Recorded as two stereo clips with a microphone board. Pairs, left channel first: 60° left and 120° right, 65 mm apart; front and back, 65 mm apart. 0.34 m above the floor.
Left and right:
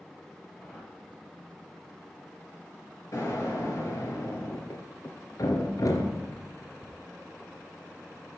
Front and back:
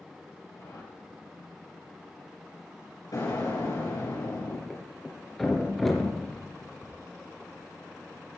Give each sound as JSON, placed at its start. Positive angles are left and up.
{"t": 0.5, "sound": "a whoosh", "azimuth_deg": -15, "distance_m": 6.0}
{"t": 3.1, "sound": "an explosion", "azimuth_deg": 25, "distance_m": 6.5}
{"t": 4.7, "sound": "a thud", "azimuth_deg": 90, "distance_m": 3.0}